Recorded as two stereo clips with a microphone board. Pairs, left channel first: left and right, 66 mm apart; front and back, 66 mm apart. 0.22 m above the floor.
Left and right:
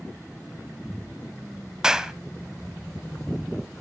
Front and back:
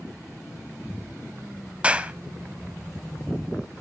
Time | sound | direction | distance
1.8 | a clap | 155° right | 0.8 m